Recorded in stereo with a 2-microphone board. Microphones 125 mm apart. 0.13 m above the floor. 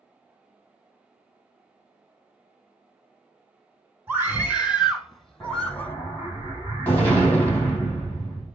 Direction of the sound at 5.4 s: 15° left (ahead or behind).